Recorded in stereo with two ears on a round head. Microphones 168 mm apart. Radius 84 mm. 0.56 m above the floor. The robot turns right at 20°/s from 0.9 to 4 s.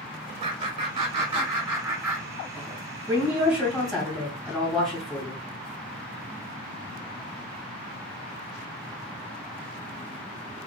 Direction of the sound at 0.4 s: 35° right (ahead or behind).